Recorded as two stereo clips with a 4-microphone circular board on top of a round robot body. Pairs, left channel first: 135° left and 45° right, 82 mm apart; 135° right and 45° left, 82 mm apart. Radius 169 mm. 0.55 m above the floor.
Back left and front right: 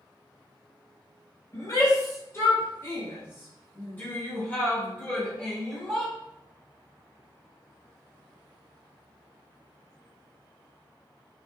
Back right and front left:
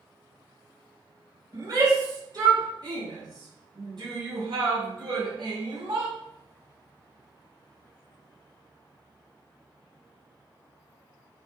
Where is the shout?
90° left, 4.5 m; by 6.1 s 55° left, 5.5 m.